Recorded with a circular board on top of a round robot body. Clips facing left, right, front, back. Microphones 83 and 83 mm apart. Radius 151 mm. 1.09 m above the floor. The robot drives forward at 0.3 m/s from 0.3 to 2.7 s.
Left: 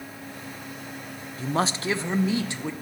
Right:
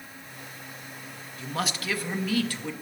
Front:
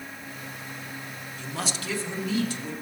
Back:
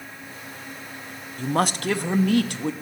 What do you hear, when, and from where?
1.4 s a man speaking: 140° left, 0.6 m; by 2.7 s 160° left, 0.9 m